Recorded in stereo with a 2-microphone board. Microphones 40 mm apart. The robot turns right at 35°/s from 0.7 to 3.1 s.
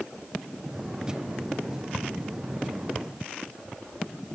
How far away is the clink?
No clink in this recording.